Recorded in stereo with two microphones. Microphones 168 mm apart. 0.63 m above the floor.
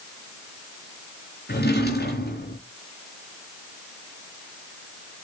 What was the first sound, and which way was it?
A drawer, 80° left.